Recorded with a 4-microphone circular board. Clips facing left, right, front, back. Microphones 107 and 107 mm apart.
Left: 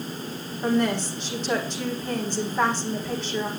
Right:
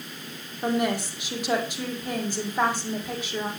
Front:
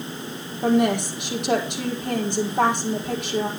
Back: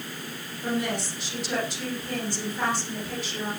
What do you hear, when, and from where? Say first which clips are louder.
0.6 s a woman speaking: left 2 dB, front 9 dB; 10° right, 5 m